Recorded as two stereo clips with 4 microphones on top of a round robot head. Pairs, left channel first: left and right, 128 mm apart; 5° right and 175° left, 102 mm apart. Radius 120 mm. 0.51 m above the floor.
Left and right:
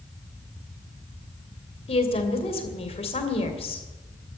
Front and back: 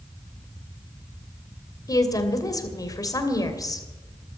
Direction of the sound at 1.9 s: 50° left.